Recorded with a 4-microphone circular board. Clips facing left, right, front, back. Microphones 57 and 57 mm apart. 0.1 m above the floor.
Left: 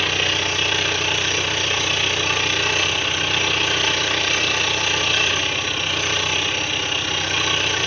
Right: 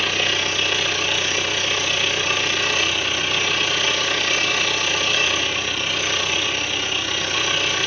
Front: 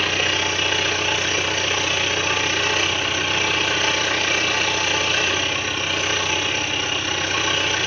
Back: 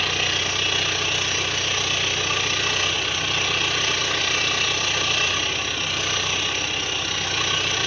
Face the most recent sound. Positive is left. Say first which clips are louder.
# even, front 3 dB
turn(degrees=40)